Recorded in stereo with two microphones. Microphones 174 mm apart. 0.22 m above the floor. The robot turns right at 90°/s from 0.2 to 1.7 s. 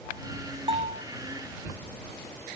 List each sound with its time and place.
0.7 s a bell: 150° right; by 1.0 s 120° right